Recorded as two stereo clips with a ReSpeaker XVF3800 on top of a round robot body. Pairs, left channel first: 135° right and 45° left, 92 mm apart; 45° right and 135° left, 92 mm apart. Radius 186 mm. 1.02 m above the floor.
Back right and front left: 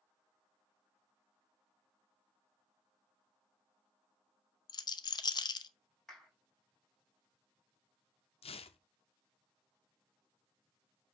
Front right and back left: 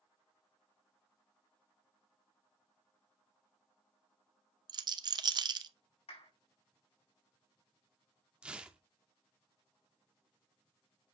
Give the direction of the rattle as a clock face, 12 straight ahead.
6 o'clock.